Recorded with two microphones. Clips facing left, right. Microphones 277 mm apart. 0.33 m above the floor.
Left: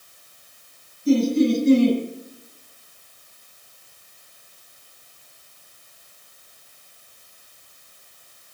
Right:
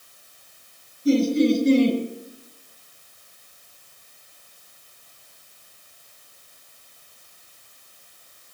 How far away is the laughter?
About 6.5 m.